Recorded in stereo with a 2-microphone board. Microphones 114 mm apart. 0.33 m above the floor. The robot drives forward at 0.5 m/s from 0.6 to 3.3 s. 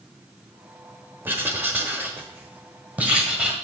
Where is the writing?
15° right (ahead or behind), 0.9 m; by 3.5 s 10° right (ahead or behind), 1.3 m.